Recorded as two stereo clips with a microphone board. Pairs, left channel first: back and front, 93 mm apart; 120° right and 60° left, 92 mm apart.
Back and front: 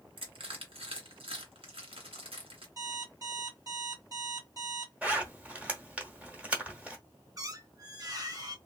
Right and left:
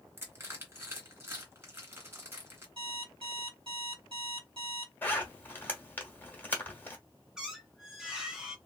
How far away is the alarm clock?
About 1.5 m.